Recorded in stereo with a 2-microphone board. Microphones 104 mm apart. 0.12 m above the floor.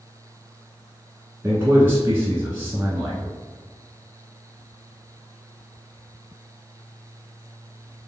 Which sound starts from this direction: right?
A man speaking, at 1.4 s.